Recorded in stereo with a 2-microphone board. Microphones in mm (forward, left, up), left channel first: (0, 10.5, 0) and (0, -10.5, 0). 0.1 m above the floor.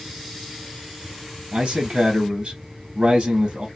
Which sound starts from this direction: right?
A man speaking, at 1.5 s.